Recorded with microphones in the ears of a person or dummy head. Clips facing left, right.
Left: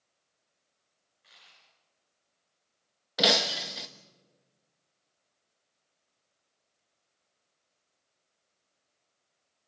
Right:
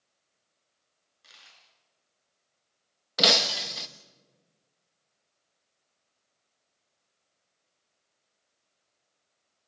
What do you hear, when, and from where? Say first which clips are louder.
1.2 s a dropped coin: right 2 dB; 55° right (ahead or behind), 5.5 m
3.2 s breaking glass: even; 5° right (ahead or behind), 0.9 m